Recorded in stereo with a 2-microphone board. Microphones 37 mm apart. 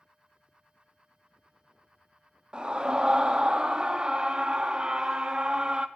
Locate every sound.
2.5 s a scream: 25° right (ahead or behind), 0.6 m